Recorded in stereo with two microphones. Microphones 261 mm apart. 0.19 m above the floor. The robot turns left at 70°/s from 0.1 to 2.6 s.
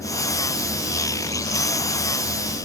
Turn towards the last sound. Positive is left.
No sound to turn to.